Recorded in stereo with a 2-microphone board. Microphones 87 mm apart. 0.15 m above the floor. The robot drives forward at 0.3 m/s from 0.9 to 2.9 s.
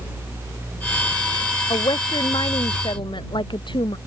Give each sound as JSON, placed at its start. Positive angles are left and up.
{"t": 1.7, "sound": "a woman speaking", "side_deg": 60}